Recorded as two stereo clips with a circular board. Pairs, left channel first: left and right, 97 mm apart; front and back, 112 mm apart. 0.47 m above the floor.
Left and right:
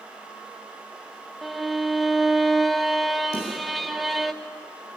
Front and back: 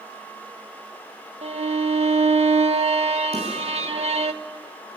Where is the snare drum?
145° left, 8.5 m.